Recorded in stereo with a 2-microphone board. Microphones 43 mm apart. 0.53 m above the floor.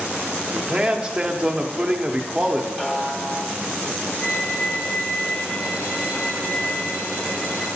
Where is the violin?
50° left (ahead or behind), 2 m.